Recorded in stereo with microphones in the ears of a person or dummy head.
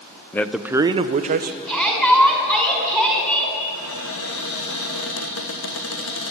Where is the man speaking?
15° left (ahead or behind), 0.7 m; by 1.6 s 50° right (ahead or behind), 1.1 m.